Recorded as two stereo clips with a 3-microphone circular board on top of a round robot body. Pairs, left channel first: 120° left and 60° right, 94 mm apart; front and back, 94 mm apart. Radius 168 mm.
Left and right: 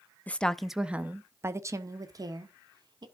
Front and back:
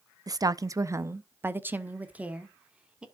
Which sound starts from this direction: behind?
A woman speaking, at 0.3 s.